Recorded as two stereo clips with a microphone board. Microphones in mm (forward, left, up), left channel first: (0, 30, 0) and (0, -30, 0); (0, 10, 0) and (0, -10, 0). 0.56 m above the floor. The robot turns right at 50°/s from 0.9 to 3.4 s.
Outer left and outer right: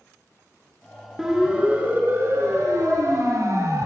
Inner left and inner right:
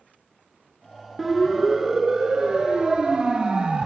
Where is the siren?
5° right (ahead or behind), 6 m; by 3.9 s 80° right, 4 m.